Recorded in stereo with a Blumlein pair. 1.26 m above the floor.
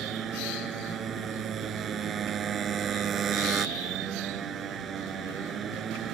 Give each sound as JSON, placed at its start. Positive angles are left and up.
{"t": 0.0, "sound": "a motorcycle", "azimuth_deg": -25}